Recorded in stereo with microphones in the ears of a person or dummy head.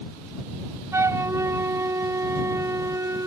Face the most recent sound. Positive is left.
turn(degrees=-15)  # may be behind; listen again after turning